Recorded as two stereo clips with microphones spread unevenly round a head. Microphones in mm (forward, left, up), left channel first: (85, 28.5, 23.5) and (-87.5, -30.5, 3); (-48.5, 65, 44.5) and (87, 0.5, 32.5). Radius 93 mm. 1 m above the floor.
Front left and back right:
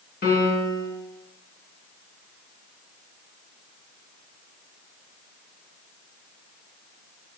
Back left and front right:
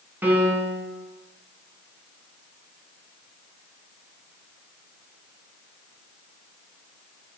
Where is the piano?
55° left, 2.5 m.